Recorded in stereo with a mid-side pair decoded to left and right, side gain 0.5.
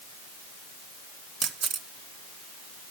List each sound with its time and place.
1.4 s a camera shutter: 60° right, 1.7 m